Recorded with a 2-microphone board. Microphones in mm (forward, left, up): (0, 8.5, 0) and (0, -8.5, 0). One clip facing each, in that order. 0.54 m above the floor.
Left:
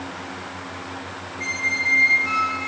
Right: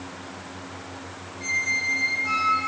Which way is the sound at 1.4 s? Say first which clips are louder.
Left 2 dB; 65° left (ahead or behind).